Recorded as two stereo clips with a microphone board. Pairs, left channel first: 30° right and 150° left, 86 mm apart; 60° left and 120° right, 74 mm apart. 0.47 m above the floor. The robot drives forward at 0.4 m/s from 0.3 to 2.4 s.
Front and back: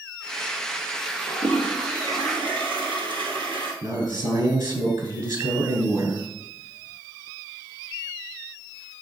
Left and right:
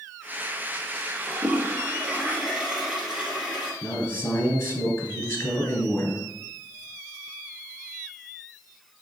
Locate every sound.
1.3 s a toilet flushing: 165° left, 2.5 m
3.8 s a man speaking: 115° left, 3 m